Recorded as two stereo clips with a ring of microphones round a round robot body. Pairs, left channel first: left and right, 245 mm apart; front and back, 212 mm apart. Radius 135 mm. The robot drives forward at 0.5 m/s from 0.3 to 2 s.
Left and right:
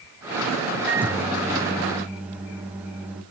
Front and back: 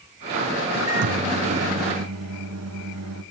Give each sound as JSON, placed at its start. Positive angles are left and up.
{"t": 0.9, "sound": "a microwave", "azimuth_deg": -175, "distance_m": 3.5}